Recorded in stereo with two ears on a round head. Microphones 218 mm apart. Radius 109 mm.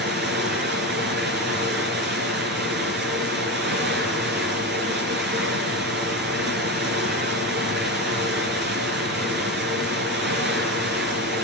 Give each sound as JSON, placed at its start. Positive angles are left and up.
{"t": 0.0, "sound": "running water", "side_deg": -45, "distance_m": 4.0}